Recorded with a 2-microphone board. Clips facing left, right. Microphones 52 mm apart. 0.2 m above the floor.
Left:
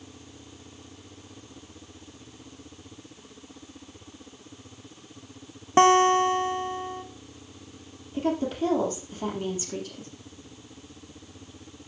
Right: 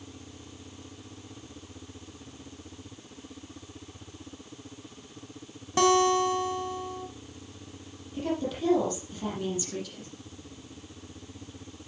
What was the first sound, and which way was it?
A guitar, 35° left (ahead or behind).